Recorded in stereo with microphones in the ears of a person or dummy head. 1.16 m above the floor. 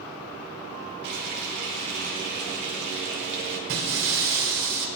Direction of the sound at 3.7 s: 70° right (ahead or behind).